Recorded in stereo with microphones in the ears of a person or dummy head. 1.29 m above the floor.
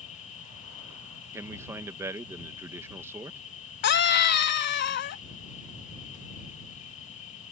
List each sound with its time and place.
0.0 s an insect: 35° left (ahead or behind)
1.3 s a man speaking: 15° right (ahead or behind)
3.8 s a scream: 60° left (ahead or behind)